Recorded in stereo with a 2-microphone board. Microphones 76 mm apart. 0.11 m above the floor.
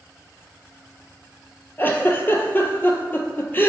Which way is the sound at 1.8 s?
30° left (ahead or behind).